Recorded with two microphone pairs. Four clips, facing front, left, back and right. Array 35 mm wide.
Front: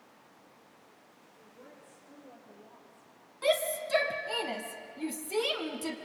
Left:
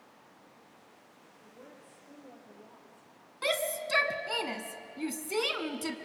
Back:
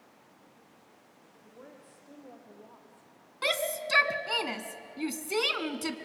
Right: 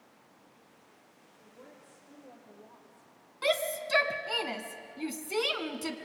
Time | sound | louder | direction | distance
1.3 | a woman speaking | left 1 dB, back 3 dB | straight behind | 8 m
3.4 | a shout | right 2 dB, front 1 dB | 175° right | 1.6 m